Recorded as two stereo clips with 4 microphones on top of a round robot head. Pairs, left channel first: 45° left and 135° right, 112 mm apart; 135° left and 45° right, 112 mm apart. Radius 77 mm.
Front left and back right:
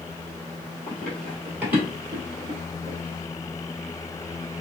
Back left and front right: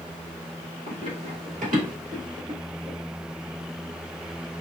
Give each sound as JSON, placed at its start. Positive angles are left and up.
{"t": 0.9, "sound": "running footsteps", "azimuth_deg": -20, "distance_m": 1.1}